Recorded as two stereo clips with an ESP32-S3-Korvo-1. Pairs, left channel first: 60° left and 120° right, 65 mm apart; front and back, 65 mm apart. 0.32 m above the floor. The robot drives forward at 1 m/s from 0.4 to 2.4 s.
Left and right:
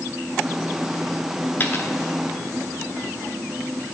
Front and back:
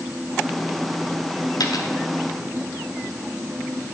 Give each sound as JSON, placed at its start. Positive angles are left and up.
{"t": 1.6, "sound": "a dropped coin", "azimuth_deg": 0, "distance_m": 1.1}